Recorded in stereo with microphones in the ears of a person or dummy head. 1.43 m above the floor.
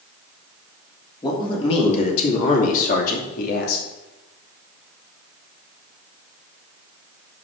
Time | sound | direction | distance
1.2 | a man speaking | 25° left (ahead or behind) | 2.5 m